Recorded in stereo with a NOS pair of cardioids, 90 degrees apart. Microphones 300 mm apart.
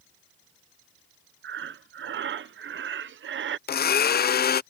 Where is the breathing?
40° right.